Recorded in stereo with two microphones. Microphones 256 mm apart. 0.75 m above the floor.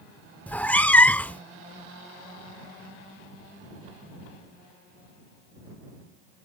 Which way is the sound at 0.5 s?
5° left (ahead or behind).